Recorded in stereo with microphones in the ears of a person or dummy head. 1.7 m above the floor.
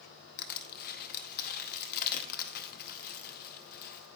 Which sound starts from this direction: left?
Crushing, at 0.4 s.